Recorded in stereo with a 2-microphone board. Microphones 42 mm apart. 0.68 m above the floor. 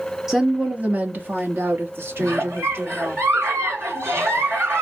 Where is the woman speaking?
5° right (ahead or behind), 0.8 m; by 3.2 s 65° right (ahead or behind), 2.5 m.